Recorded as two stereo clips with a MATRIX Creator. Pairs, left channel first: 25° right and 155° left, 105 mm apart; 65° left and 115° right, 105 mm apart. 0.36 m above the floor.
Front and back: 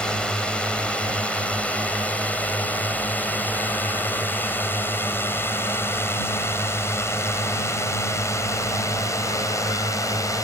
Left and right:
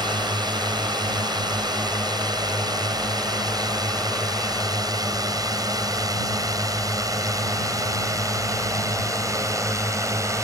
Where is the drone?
100° right; by 10.4 s 65° right.